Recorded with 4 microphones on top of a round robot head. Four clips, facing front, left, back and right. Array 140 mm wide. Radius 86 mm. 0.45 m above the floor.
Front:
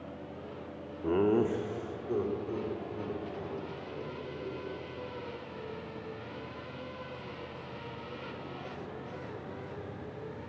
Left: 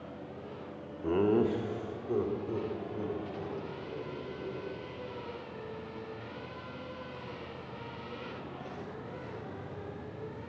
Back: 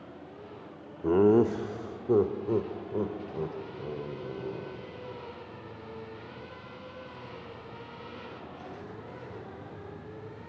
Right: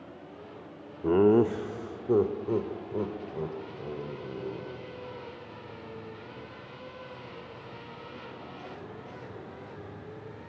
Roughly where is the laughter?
Behind right.